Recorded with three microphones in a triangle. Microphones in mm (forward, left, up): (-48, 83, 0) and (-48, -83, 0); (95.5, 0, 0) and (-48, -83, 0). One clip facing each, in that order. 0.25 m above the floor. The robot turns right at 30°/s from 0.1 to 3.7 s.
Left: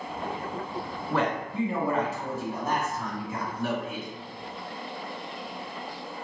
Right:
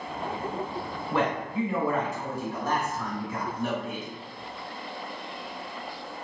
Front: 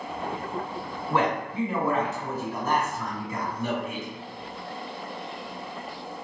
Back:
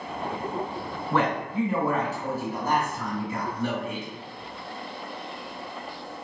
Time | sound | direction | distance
1.1 | a man speaking | 95° left | 2.0 m